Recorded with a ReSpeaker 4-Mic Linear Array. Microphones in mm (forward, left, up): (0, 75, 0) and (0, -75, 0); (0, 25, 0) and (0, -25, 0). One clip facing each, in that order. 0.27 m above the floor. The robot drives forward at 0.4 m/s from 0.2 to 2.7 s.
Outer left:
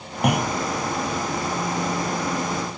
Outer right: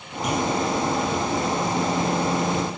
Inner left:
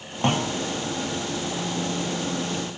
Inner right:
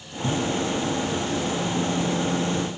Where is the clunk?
65° left (ahead or behind); by 0.6 s 70° left (ahead or behind).